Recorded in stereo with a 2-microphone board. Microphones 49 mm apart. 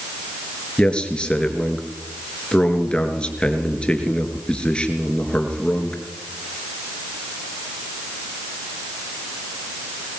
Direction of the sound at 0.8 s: 20° left (ahead or behind).